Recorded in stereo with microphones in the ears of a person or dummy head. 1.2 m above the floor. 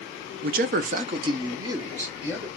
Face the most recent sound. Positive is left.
turn(degrees=-10)  # may be behind; listen again after turning